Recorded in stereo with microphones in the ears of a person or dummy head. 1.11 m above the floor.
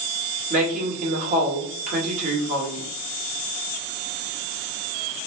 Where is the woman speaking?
45° right (ahead or behind), 1.9 m.